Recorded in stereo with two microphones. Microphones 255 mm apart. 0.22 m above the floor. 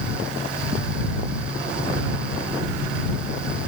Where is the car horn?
No car horn in this recording.